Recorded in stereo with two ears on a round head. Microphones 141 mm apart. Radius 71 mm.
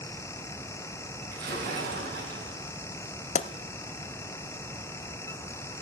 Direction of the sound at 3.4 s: 45° left (ahead or behind).